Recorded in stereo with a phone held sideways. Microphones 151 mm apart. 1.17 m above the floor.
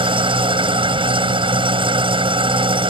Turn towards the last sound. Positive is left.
turn(degrees=-35)  # may be behind; listen again after turning